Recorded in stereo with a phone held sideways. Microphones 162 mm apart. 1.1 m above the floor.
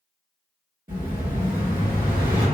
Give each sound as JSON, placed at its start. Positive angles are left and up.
{"t": 0.9, "sound": "an explosion", "side_deg": -60, "distance_m": 1.4}